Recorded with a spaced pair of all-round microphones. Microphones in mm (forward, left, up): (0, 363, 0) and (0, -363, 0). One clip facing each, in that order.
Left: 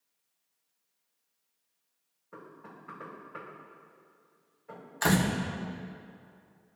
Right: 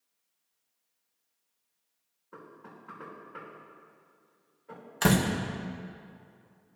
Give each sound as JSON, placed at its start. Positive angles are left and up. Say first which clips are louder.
{"t": 2.3, "sound": "knocking", "louder": "even", "side_deg": 25, "distance_m": 2.5}
{"t": 5.0, "sound": "a door slam", "louder": "right 2 dB", "side_deg": -55, "distance_m": 0.9}